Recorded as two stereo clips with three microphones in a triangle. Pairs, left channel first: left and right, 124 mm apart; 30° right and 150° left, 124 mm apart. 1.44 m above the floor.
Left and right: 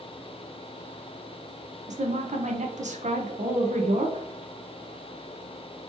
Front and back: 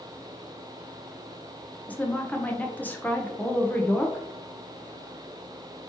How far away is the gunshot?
I don't hear a gunshot.